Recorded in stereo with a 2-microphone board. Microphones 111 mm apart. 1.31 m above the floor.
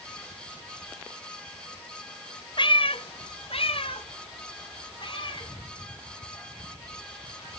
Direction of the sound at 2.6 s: 45° left (ahead or behind).